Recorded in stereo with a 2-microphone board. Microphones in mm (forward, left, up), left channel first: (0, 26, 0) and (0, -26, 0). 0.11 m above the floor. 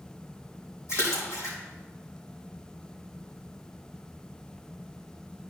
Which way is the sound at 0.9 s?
70° left (ahead or behind).